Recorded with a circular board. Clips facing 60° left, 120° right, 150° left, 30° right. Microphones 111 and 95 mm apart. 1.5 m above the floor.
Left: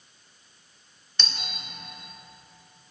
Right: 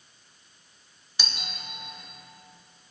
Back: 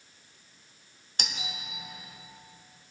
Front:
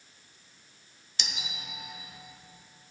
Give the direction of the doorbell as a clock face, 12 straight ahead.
7 o'clock.